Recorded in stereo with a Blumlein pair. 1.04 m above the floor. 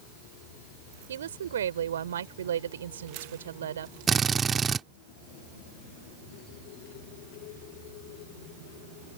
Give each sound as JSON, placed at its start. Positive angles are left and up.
{"t": 1.1, "sound": "a woman speaking", "azimuth_deg": -65}
{"t": 4.1, "sound": "a drill", "azimuth_deg": -20}